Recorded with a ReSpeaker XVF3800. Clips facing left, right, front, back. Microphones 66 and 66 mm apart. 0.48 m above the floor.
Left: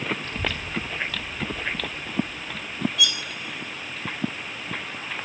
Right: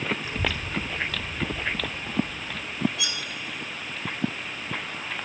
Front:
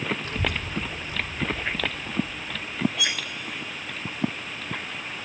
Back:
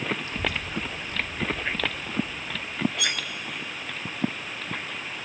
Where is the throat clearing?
I don't hear throat clearing.